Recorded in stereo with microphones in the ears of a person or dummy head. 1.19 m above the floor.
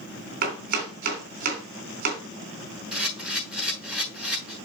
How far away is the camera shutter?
About 7 m.